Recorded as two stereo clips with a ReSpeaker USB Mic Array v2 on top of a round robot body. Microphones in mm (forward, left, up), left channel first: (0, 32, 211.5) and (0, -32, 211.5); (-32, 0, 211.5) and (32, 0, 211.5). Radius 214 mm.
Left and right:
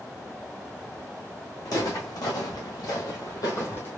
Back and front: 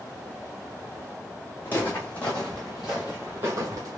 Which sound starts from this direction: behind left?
Footsteps, at 1.6 s.